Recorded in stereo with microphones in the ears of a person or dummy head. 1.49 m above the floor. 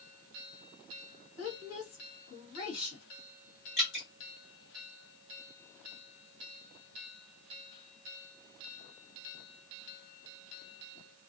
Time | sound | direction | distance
1.4 | a woman speaking | 65° left (ahead or behind) | 2 m
3.8 | dripping | 55° left (ahead or behind) | 2 m